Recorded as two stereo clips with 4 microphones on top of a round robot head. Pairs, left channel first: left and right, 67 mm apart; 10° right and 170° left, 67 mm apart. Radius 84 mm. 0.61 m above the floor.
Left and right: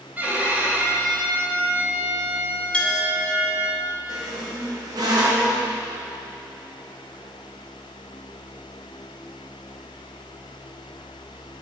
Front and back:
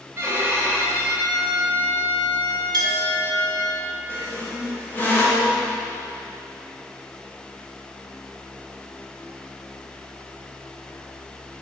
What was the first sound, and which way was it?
A violin, 150° right.